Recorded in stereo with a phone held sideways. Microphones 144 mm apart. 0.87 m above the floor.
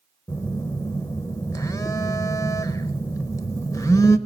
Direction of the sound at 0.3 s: 25° left (ahead or behind).